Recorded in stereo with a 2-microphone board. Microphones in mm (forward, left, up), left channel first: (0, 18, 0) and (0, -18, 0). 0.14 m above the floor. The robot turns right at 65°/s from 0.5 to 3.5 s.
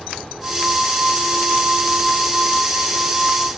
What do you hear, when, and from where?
Only background noise.